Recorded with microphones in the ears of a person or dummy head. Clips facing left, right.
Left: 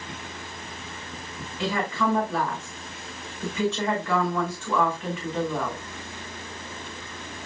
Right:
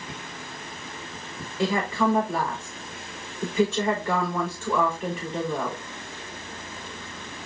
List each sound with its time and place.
1.6 s a woman speaking: 35° right (ahead or behind), 4.5 m